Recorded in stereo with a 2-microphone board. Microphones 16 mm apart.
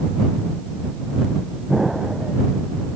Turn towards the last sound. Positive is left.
turn(degrees=-20)  # may be behind; listen again after turning